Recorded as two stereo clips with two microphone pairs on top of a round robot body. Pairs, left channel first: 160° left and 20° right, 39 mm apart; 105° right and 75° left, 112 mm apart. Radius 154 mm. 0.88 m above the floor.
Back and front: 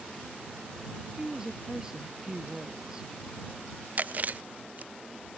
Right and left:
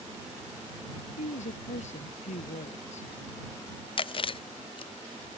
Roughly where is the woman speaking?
Right.